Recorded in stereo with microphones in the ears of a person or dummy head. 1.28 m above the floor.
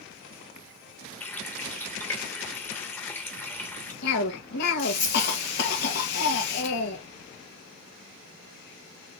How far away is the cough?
About 1.7 m.